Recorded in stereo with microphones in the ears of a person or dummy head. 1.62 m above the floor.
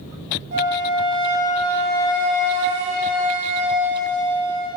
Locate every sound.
0.5 s a flute: 35° right (ahead or behind), 2.5 m